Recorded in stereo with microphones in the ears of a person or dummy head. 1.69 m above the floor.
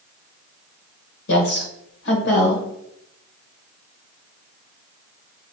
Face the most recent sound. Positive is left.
turn(degrees=50)  # may be behind; listen again after turning